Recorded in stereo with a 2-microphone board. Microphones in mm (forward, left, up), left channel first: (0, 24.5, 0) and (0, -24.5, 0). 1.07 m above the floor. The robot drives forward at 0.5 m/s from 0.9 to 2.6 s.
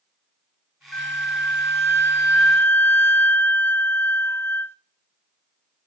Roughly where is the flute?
Left.